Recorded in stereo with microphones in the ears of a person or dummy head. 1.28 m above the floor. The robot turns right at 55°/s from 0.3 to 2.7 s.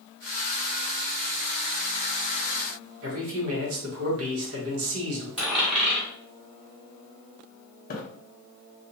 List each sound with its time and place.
3.0 s a man speaking: 75° right (ahead or behind), 1.1 m
5.4 s a dropped coin: 10° right (ahead or behind), 1.0 m
7.9 s a splash: 40° left (ahead or behind), 0.7 m